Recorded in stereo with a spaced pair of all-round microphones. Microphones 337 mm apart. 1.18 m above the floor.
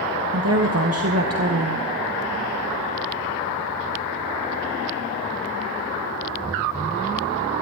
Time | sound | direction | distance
0.3 | a woman speaking | 45° right (ahead or behind) | 1.1 m